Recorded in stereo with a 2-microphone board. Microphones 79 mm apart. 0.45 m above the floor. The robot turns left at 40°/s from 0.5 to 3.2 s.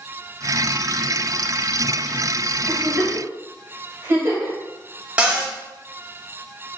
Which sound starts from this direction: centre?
A cupboard door, at 5.2 s.